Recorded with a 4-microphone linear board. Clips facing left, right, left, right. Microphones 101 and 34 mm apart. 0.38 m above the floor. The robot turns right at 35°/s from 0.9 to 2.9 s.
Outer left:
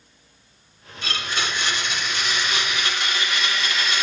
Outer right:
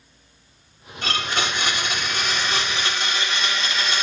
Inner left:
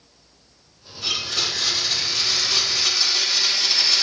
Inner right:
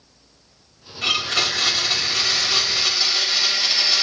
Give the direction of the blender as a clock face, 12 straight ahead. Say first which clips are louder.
Outer right 3 dB, inner right 4 dB; 3 o'clock.